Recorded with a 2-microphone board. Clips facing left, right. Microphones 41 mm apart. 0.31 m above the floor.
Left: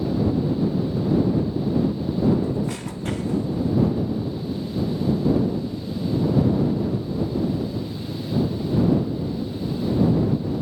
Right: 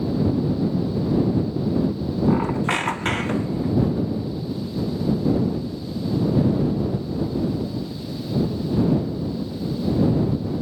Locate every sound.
2.3 s a squeak: 50° right (ahead or behind)